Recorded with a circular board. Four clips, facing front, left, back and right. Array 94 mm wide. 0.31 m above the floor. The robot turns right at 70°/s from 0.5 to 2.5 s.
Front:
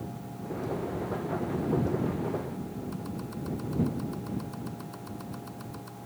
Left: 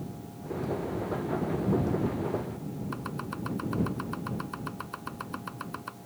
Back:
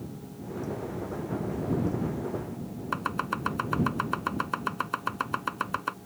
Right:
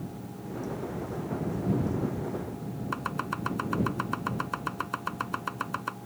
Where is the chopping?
160° right.